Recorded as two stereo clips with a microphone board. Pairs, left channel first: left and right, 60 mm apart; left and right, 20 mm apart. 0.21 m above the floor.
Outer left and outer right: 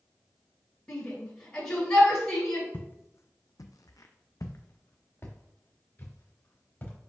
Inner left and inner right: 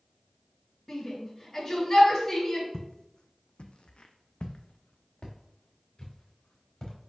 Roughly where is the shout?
Centre.